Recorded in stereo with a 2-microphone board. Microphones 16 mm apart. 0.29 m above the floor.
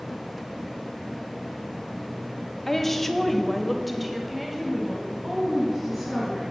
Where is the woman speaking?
15° left (ahead or behind), 1.4 m; by 6.4 s 10° right (ahead or behind), 3 m.